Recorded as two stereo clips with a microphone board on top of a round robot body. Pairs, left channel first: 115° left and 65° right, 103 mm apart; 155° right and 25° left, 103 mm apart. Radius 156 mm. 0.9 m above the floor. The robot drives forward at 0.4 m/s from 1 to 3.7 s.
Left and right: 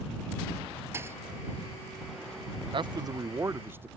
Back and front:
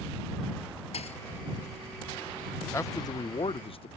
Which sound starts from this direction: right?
A man speaking, at 2.7 s.